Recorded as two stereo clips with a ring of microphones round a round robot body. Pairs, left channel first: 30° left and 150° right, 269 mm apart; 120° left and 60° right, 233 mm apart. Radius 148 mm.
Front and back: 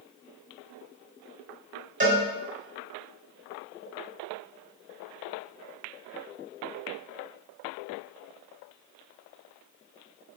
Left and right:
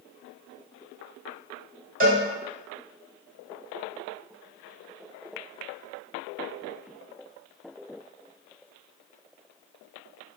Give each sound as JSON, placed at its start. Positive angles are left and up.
{"t": 2.0, "sound": "a cowbell", "azimuth_deg": -100, "distance_m": 1.5}